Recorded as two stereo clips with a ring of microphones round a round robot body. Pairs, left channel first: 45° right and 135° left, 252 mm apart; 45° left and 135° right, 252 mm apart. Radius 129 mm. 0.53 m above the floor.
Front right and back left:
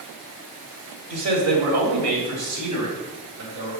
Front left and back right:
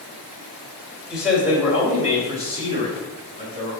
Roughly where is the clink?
I don't hear a clink.